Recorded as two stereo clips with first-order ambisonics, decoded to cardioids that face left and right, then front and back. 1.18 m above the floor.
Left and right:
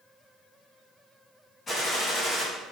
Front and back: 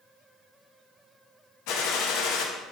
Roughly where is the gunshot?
Ahead.